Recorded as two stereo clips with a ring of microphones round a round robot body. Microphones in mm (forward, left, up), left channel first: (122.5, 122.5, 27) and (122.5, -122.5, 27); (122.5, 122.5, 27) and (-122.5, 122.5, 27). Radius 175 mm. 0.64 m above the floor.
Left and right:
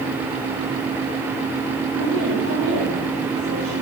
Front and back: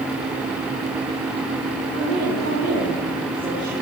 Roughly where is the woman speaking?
Behind left.